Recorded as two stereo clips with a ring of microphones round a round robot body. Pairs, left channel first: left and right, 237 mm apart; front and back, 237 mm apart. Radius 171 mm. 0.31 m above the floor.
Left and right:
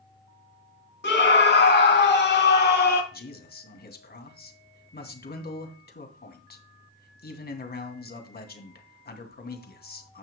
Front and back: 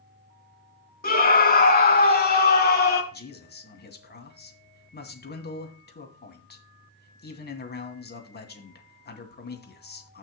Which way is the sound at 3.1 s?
45° left.